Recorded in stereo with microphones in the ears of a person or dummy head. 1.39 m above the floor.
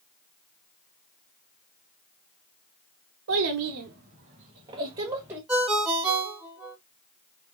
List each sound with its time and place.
3.3 s a child speaking: 80° right, 1.0 m; by 5.4 s 20° right (ahead or behind), 1.7 m
5.5 s a ringtone: centre (ahead or behind), 0.6 m